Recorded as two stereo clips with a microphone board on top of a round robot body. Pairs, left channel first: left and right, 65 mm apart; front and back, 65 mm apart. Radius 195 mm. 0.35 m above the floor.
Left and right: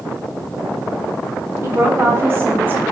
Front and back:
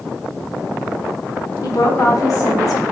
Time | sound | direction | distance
1.6 | a woman speaking | 35° right | 3 m